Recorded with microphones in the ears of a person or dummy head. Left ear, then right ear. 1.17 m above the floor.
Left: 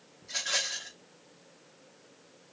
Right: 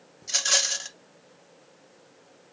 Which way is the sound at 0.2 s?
75° right (ahead or behind).